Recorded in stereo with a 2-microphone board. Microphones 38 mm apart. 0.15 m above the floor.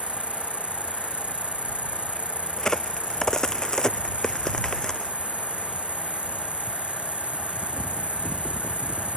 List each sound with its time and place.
0.0 s an insect: 35° right (ahead or behind)
2.6 s a crack: 15° left (ahead or behind)